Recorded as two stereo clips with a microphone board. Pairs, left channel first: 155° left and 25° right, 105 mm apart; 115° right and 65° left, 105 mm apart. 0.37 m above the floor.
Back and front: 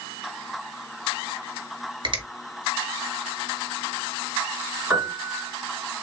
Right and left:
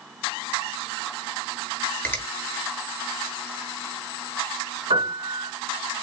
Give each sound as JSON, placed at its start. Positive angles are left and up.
{"t": 2.0, "sound": "a finger snap", "azimuth_deg": -45, "distance_m": 1.5}
{"t": 4.9, "sound": "a piano", "azimuth_deg": 55, "distance_m": 2.5}